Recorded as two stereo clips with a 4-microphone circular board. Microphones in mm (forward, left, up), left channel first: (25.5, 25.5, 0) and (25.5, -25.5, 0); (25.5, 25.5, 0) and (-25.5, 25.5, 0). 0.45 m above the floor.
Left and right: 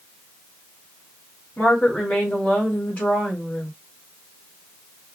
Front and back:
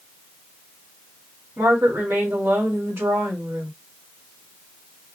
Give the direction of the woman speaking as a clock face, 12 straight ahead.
7 o'clock.